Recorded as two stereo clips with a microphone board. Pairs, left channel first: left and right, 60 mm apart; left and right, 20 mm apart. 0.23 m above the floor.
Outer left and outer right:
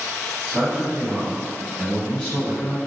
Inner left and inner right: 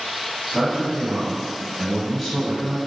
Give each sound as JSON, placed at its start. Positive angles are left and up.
{"t": 0.5, "sound": "a man speaking", "side_deg": -30, "distance_m": 1.1}